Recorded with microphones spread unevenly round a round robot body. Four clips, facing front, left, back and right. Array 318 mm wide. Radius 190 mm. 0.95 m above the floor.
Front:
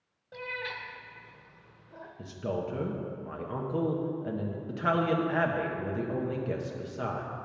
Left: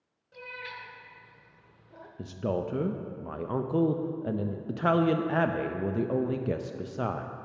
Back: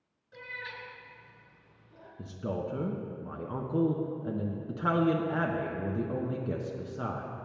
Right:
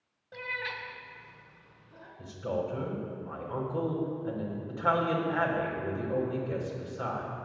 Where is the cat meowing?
30° right, 1.4 m; by 2.1 s 90° left, 0.7 m.